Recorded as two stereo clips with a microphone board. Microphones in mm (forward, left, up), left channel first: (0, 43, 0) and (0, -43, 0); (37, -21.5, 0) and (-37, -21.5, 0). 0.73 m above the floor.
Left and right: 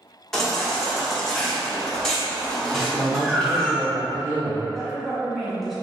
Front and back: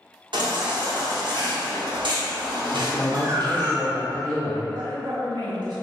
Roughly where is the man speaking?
Ahead right.